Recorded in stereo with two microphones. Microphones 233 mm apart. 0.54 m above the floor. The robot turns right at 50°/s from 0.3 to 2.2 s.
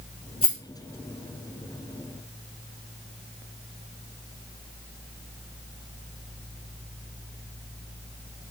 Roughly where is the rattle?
Left.